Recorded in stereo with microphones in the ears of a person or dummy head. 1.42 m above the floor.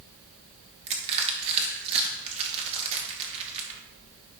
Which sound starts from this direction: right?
Crushing, at 0.9 s.